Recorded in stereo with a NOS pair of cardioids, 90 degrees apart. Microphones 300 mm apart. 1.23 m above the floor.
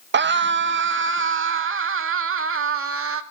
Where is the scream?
40° right, 1.7 m; by 3.2 s 45° right, 3.5 m.